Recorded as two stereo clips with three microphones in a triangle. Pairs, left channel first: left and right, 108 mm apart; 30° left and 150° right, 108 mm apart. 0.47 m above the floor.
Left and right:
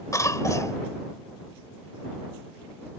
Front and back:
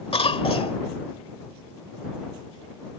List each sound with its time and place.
0.1 s a cough: 35° left